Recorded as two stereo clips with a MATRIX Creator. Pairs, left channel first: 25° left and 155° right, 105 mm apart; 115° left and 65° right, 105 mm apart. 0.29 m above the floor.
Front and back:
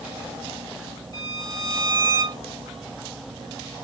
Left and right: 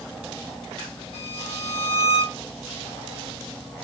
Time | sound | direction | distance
1.1 | a violin | 15° right | 2.5 m